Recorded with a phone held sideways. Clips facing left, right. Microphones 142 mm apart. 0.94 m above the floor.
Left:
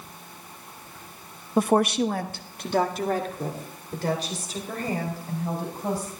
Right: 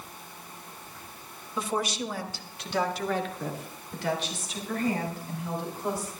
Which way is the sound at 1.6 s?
50° left (ahead or behind).